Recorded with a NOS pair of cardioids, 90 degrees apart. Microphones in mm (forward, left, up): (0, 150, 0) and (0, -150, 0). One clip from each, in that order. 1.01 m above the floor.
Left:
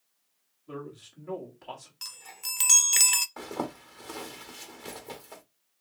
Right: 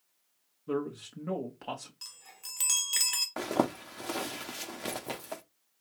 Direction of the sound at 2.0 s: 30° left.